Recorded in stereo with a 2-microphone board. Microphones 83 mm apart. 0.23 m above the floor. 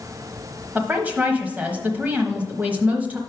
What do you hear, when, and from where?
0.8 s a woman speaking: 20° right (ahead or behind), 0.9 m